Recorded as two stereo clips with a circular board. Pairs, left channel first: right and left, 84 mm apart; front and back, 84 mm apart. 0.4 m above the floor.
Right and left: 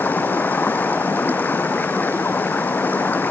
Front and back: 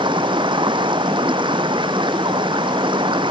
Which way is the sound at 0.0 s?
160° right.